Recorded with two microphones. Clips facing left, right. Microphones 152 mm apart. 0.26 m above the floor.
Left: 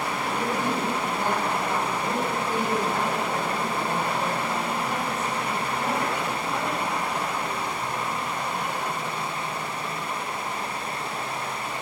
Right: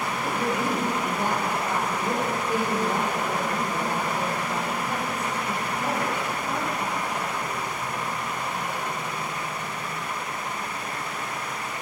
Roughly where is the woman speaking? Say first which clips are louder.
Right 1 dB; centre.